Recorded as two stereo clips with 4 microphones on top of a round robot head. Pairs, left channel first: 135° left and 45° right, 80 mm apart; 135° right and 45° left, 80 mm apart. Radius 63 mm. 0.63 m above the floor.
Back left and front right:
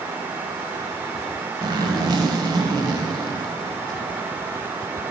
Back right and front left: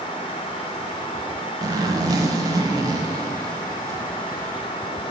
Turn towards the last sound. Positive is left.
turn(degrees=-5)